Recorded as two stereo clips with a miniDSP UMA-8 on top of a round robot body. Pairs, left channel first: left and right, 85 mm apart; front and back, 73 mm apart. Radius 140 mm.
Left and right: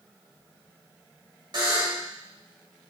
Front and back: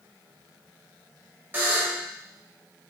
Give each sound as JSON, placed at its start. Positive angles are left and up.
{"t": 1.5, "sound": "a buzzer", "azimuth_deg": -115, "distance_m": 1.5}